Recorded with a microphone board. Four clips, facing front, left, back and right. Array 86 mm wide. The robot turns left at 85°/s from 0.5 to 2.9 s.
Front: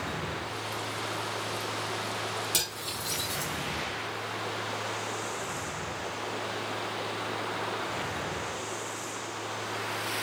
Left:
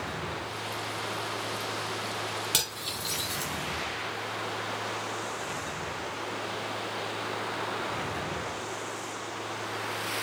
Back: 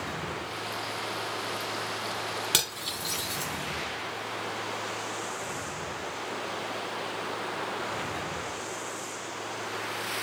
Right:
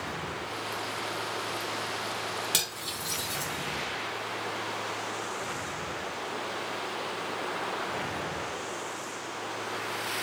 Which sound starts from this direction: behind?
Cutlery clinking, at 2.5 s.